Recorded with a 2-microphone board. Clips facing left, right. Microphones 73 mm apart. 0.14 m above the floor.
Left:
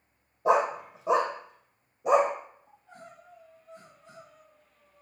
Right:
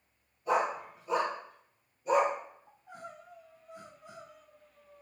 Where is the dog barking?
80° left, 2.5 m; by 2.3 s 65° left (ahead or behind), 3 m.